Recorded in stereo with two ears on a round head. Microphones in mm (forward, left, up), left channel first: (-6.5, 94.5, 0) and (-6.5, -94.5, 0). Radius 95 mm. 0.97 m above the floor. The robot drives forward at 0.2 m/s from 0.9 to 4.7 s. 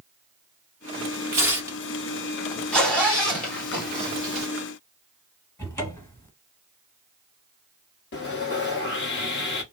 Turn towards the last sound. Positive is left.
turn(degrees=55)  # may be behind; listen again after turning